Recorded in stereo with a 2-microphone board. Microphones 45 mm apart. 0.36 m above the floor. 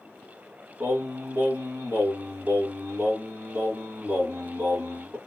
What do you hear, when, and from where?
0.8 s singing: 55° right (ahead or behind), 1.2 m